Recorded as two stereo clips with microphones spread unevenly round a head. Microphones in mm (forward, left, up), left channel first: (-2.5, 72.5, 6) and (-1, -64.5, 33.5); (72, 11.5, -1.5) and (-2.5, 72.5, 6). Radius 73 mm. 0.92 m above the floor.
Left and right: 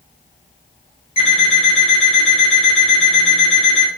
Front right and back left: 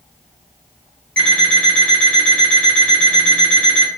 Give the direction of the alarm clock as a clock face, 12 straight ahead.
11 o'clock.